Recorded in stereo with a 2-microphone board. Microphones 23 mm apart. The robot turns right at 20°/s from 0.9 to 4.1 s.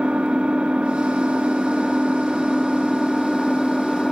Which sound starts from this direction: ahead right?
An engine running, at 0.0 s.